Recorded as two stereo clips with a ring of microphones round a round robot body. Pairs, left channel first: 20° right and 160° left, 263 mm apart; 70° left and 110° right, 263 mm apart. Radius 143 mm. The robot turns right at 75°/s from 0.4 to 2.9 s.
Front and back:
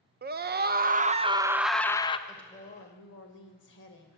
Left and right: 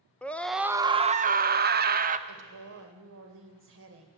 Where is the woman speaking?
115° right, 2.5 m; by 4.1 s 70° right, 2.5 m.